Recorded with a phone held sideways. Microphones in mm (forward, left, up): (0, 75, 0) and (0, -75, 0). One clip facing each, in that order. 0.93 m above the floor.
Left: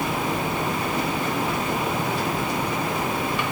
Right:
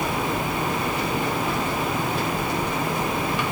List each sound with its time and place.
Only background noise.